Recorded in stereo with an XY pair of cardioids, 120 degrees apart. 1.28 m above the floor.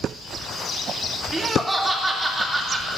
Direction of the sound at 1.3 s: 15° right.